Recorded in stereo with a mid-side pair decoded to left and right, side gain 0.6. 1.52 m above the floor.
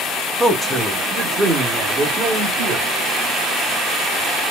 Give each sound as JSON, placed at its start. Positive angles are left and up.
{"t": 0.4, "sound": "a man speaking", "azimuth_deg": 0, "distance_m": 1.0}